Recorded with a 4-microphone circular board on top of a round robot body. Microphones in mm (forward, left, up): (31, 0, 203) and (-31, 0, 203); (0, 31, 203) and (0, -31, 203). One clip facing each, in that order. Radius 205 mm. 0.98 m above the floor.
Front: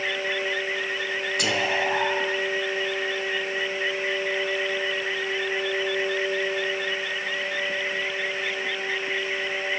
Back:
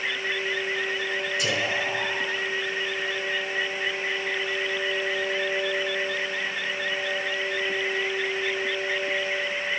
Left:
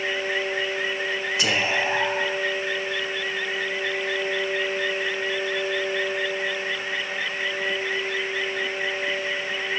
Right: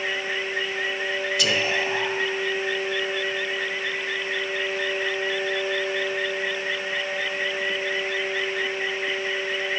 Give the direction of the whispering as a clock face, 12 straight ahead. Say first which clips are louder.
Front 4 dB, left 1 dB; 11 o'clock.